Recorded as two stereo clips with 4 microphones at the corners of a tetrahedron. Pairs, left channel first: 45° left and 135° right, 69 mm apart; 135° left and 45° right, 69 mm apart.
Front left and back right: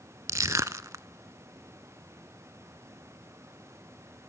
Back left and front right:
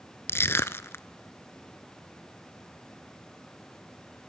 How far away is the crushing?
About 0.5 m.